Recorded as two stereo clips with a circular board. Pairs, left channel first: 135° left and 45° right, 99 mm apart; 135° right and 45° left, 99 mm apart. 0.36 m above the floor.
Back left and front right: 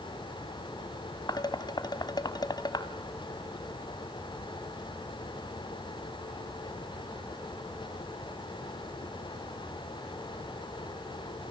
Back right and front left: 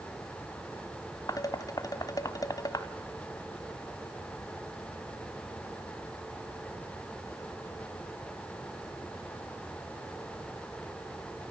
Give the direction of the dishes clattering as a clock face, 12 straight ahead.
6 o'clock.